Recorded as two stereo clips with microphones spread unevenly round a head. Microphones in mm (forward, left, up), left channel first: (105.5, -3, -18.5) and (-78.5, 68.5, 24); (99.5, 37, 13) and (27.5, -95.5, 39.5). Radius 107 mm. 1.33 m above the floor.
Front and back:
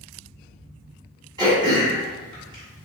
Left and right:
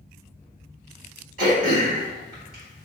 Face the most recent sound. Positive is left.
turn(degrees=-140)